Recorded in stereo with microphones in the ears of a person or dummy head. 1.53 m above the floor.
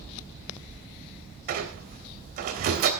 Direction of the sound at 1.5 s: 50° right (ahead or behind).